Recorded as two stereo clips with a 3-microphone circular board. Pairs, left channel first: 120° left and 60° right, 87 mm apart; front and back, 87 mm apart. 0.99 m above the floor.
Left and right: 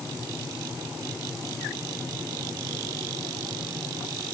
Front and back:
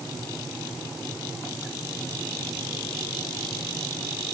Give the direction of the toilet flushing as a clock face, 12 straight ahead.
No toilet flushing in this recording.